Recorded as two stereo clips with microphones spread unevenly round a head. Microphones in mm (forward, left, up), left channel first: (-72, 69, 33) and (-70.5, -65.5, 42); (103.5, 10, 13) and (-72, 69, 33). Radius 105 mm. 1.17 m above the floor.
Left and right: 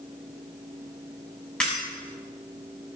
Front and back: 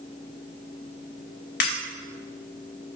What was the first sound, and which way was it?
Breaking glass, 5° left.